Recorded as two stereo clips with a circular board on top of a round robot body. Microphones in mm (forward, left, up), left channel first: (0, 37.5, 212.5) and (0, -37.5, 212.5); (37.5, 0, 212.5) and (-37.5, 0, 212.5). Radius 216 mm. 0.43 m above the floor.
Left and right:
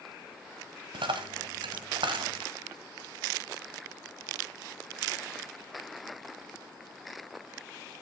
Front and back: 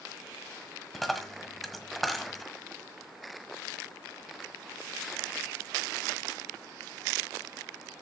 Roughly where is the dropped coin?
Right.